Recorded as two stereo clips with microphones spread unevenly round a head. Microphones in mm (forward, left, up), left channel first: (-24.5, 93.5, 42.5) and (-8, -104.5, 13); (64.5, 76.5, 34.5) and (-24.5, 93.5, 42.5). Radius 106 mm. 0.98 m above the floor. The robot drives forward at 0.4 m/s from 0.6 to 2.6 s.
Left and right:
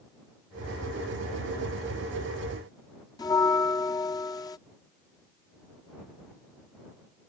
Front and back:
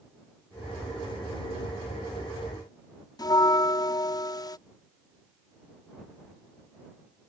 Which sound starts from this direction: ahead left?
A bell, at 3.2 s.